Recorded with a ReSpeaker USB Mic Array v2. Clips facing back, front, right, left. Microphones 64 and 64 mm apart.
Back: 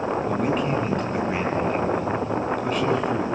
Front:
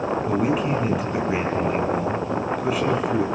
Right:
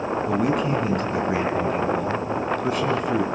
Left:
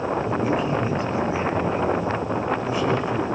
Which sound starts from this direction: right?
A man speaking, at 0.3 s.